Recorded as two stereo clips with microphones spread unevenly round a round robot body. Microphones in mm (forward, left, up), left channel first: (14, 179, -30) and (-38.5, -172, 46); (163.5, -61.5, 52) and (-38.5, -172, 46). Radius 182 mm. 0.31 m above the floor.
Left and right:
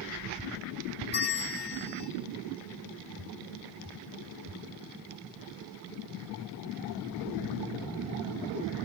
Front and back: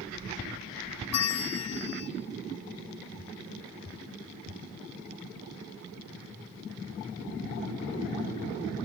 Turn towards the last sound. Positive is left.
turn(degrees=20)